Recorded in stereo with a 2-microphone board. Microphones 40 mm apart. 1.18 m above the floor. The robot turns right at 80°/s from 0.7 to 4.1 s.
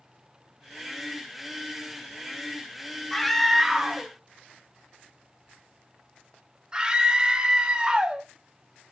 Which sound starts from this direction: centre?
A scream, at 3.1 s.